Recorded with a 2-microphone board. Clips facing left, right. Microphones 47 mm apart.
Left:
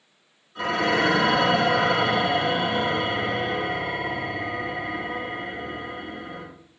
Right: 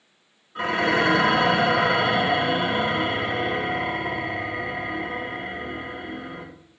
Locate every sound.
0.6 s dishes clattering: 30° right (ahead or behind), 0.9 m